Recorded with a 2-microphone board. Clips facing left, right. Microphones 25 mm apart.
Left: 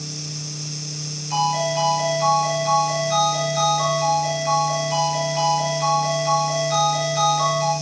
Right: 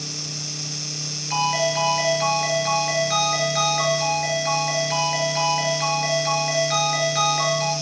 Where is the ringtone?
35° right (ahead or behind), 4.5 m.